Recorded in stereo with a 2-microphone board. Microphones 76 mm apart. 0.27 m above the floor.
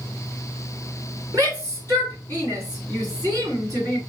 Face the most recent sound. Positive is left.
turn(degrees=-45)  # may be behind; listen again after turning